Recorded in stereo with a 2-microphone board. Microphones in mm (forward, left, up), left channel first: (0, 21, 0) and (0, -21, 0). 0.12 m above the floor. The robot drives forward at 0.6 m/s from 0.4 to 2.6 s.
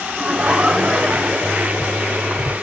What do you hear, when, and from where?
0.2 s laughter: 25° right (ahead or behind), 1.1 m; by 2.4 s 15° right (ahead or behind), 1.8 m